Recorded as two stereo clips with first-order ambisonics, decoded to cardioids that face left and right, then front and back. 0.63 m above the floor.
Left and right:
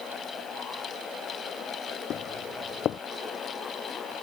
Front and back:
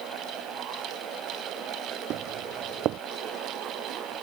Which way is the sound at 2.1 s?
140° left.